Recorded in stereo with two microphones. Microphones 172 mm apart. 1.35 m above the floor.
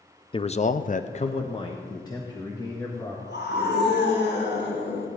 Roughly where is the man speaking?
Left.